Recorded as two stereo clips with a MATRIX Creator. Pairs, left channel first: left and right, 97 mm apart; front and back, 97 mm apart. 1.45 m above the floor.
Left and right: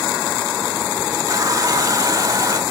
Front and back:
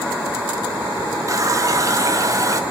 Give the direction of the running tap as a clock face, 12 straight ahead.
4 o'clock.